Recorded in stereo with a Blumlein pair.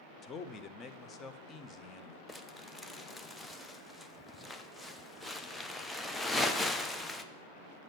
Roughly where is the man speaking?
Ahead.